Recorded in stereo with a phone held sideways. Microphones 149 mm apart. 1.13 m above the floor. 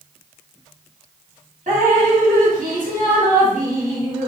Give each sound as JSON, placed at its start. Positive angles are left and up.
{"t": 1.7, "sound": "dripping", "side_deg": -65, "distance_m": 1.0}